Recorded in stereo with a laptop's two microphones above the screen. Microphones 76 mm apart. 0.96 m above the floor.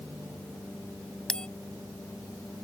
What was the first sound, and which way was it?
A bell, 10° left (ahead or behind).